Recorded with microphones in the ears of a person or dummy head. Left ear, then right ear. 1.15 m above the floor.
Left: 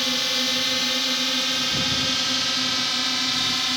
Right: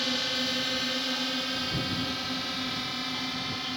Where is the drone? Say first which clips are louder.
Left 6 dB; 10° left (ahead or behind); by 3.8 s 30° left (ahead or behind).